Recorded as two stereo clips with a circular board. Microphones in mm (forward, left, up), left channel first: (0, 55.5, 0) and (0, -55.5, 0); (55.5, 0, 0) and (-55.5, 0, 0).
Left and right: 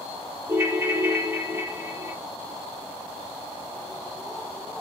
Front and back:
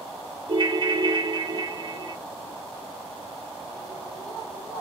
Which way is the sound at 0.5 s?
155° right.